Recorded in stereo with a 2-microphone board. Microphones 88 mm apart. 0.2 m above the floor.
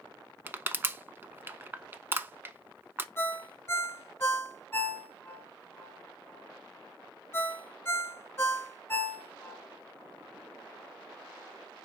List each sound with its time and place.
0.5 s crushing: 25° right (ahead or behind), 0.6 m
3.2 s a ringtone: 30° left (ahead or behind), 0.9 m